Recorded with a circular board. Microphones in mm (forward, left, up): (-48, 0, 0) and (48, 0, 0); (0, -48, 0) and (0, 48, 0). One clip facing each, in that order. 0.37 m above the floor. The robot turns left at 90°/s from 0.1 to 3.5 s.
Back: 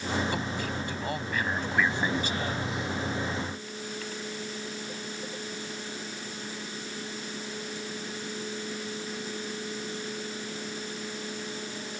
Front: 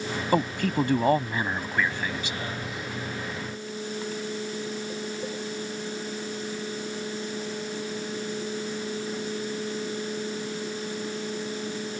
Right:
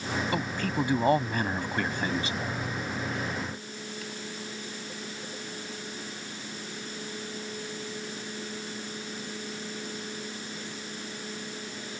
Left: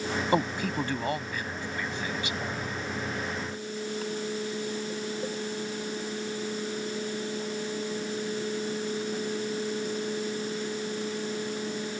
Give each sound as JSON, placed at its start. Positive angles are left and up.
{"t": 0.3, "sound": "a man speaking", "azimuth_deg": 35}